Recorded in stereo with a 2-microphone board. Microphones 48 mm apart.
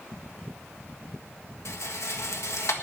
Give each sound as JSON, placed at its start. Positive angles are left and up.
{"t": 1.6, "sound": "a rattle", "side_deg": 80, "distance_m": 1.6}